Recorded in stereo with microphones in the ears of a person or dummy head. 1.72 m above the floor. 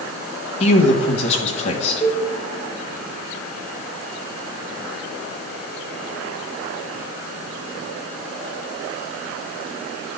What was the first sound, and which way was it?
A man speaking, 40° left (ahead or behind).